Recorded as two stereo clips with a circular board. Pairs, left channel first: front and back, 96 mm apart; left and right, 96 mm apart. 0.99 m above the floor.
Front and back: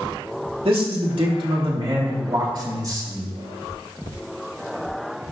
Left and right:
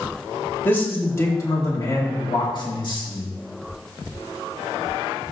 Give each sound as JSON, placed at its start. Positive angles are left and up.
{"t": 0.7, "sound": "a man speaking", "azimuth_deg": 160, "distance_m": 2.0}